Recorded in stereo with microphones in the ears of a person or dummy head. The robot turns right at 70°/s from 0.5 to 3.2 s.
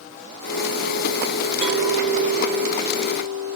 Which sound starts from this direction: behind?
A clink, at 1.6 s.